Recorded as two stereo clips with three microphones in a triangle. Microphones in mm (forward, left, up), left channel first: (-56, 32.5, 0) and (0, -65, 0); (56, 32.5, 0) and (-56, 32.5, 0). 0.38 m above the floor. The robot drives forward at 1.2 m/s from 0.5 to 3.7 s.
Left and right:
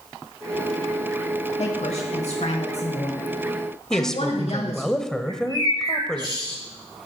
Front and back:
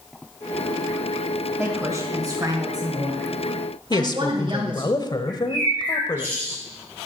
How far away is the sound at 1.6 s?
About 2.5 m.